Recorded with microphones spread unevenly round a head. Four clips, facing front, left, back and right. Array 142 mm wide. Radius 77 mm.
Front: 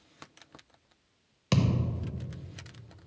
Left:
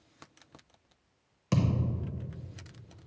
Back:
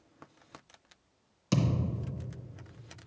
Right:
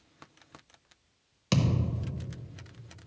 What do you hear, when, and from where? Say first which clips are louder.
1.5 s a thud: right 1 dB, front 2 dB; 15° right, 0.8 m